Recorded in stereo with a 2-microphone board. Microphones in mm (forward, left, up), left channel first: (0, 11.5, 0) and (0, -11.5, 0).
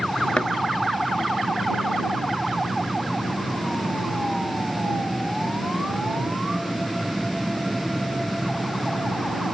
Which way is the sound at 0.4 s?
55° left (ahead or behind).